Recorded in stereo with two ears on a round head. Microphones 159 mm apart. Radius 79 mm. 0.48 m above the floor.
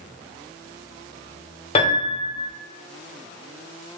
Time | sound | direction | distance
1.8 | a piano | 35° left (ahead or behind) | 0.8 m